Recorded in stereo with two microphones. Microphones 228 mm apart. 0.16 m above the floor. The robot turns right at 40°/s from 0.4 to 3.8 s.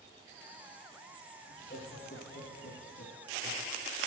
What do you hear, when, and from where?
1.5 s laughter: 35° left, 4 m; by 3.7 s 125° left, 4 m